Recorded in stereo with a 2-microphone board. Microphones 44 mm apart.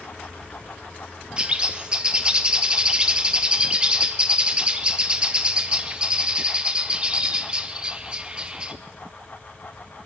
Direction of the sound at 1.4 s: 25° right (ahead or behind).